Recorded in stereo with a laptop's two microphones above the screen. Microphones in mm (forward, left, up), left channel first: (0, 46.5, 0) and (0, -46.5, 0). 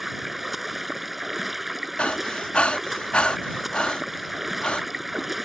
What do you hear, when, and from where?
0.0 s running water: centre (ahead or behind)
2.0 s breathing: 15° left (ahead or behind)